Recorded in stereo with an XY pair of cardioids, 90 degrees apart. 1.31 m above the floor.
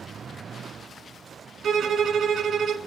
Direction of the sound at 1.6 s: 65° right.